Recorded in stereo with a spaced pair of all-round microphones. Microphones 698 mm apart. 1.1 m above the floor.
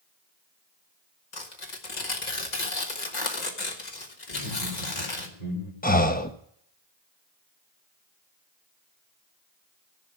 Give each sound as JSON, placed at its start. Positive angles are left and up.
{"t": 1.3, "sound": "tearing paper", "side_deg": 75, "distance_m": 1.7}
{"t": 4.3, "sound": "laughter", "side_deg": 65, "distance_m": 3.0}
{"t": 5.8, "sound": "breathing", "side_deg": 15, "distance_m": 0.8}